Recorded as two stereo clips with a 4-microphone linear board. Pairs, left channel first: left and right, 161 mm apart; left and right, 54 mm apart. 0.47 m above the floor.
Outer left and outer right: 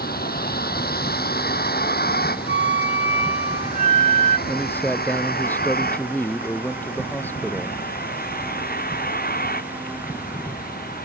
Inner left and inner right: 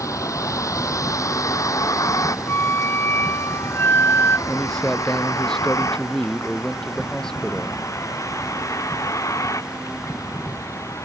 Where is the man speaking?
10° left (ahead or behind).